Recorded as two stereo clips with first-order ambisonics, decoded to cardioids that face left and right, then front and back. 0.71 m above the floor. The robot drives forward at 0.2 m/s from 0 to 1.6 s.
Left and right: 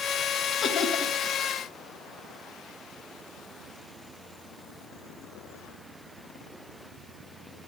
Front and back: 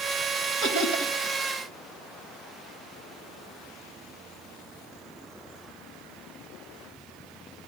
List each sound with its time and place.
0.6 s laughter: 155° left, 4.5 m; by 1.1 s 160° left, 4.5 m